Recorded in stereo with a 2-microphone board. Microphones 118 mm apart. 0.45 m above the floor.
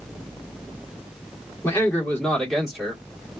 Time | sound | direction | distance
1.6 | a man speaking | 20° left (ahead or behind) | 1.4 m